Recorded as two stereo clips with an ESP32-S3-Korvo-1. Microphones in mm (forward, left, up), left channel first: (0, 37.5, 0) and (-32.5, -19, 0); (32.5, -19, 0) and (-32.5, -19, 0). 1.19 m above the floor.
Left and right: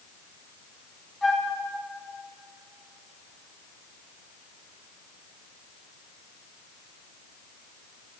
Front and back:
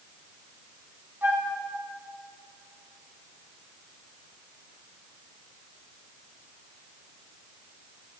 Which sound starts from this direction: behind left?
A flute, at 1.2 s.